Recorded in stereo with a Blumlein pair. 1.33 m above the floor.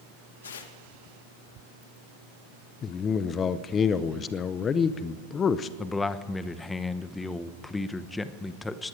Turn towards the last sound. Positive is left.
turn(degrees=10)